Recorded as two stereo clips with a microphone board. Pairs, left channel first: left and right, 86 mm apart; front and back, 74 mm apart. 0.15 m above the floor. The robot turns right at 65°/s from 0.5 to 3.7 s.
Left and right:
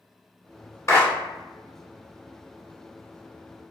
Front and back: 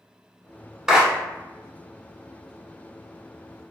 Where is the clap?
100° left, 0.9 m; by 1.1 s 115° left, 0.9 m.